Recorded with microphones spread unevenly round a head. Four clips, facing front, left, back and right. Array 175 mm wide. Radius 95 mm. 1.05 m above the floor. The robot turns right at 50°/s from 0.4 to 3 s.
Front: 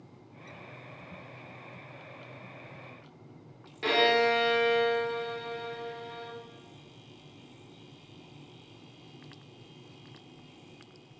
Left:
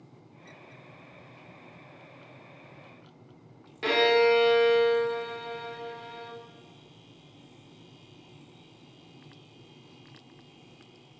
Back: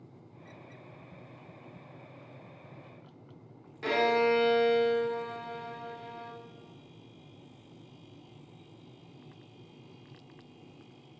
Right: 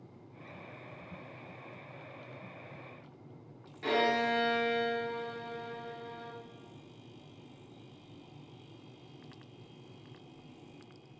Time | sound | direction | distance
3.8 | a violin | 70° left | 1.9 m